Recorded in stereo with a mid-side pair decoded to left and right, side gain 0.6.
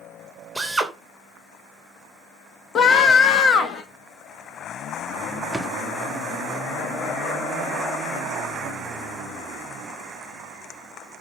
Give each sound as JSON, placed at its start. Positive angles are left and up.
{"t": 0.6, "sound": "a drill", "azimuth_deg": -5, "distance_m": 3.0}
{"t": 2.8, "sound": "a scream", "azimuth_deg": 40, "distance_m": 2.5}
{"t": 5.5, "sound": "a drawer", "azimuth_deg": -5, "distance_m": 1.7}